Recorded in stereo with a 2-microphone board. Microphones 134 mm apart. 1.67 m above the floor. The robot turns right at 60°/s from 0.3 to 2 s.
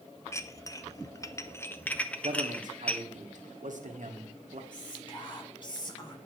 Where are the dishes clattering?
20° left (ahead or behind), 0.7 m; by 3.0 s 10° left (ahead or behind), 0.7 m.